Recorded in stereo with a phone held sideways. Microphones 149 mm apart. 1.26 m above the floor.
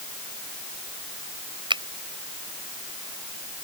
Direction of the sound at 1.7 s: 30° right (ahead or behind).